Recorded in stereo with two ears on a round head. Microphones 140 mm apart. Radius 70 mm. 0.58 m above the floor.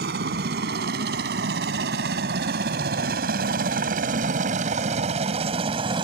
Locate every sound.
0.0 s a helicopter: 70° right (ahead or behind); by 6.0 s 30° right (ahead or behind)